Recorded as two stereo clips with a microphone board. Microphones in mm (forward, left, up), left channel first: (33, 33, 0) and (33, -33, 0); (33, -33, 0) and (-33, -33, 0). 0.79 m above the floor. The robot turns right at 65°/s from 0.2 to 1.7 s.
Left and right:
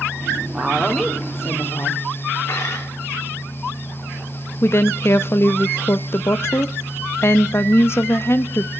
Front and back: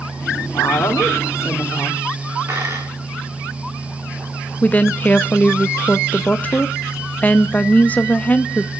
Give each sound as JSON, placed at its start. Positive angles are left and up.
{"t": 0.5, "sound": "a woman speaking", "azimuth_deg": -15, "distance_m": 1.5}
{"t": 2.5, "sound": "a dropped coin", "azimuth_deg": 135, "distance_m": 3.5}
{"t": 4.6, "sound": "a woman speaking", "azimuth_deg": 55, "distance_m": 0.6}